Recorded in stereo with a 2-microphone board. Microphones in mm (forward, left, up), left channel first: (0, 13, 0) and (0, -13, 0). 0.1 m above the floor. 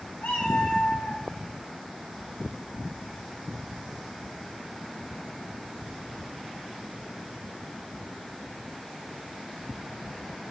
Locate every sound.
0.2 s a cat meowing: 70° left (ahead or behind), 4.5 m